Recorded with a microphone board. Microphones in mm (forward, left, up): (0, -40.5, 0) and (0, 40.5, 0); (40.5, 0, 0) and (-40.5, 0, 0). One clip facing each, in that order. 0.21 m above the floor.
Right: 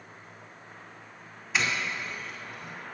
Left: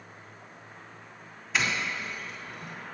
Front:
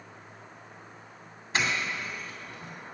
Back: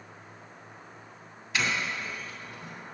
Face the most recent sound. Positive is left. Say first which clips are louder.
# even, front 1 dB
turn(degrees=0)